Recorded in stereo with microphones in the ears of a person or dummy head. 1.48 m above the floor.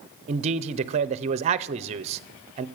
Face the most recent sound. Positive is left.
turn(degrees=-35)  # may be behind; listen again after turning